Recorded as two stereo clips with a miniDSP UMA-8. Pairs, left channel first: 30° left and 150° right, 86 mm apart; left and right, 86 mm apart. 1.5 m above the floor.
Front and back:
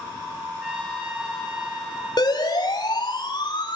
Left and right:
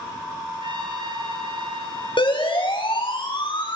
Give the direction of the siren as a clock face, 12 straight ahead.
10 o'clock.